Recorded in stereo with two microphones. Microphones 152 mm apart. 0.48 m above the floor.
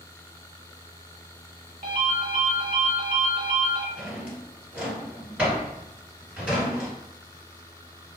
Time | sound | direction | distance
1.8 | a ringtone | 55° right (ahead or behind) | 0.9 m
4.0 | a drawer | 10° right (ahead or behind) | 1.8 m